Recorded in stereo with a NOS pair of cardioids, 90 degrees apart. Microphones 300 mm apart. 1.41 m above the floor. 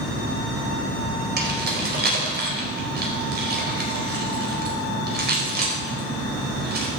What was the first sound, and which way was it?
Keys jangling, 35° right.